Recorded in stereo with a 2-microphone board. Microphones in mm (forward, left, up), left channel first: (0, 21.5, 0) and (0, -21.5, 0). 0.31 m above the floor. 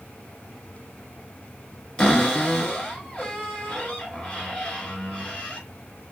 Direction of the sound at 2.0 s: 25° left (ahead or behind).